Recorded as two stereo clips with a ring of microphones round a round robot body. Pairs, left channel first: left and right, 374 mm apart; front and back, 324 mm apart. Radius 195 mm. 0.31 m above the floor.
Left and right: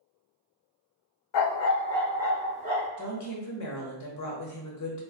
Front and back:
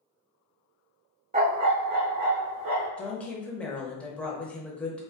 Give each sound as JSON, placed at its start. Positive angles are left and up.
{"t": 1.3, "sound": "a dog barking", "azimuth_deg": 110, "distance_m": 0.8}
{"t": 3.0, "sound": "a woman speaking", "azimuth_deg": 85, "distance_m": 1.2}